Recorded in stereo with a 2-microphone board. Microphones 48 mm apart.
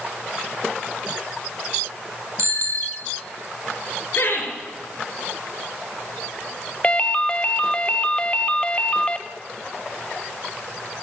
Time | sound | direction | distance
2.4 | a bicycle bell | 70° right (ahead or behind) | 2 m
4.2 | laughter | 55° left (ahead or behind) | 5 m
6.8 | a ringtone | 25° left (ahead or behind) | 0.5 m